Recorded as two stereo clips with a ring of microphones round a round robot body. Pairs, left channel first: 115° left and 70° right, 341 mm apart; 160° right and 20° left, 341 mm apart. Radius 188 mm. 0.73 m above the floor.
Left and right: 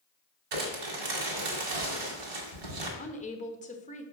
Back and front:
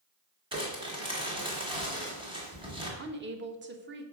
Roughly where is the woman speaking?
Ahead left.